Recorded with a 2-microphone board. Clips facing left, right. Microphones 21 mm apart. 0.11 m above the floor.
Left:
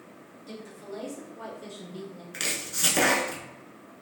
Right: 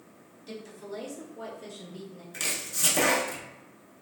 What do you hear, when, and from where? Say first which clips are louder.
0.5 s a woman speaking: right 1 dB; 10° right (ahead or behind), 1.4 m; by 2.2 s 20° left (ahead or behind), 1.1 m
2.3 s chopping: left 1 dB; 25° left (ahead or behind), 0.7 m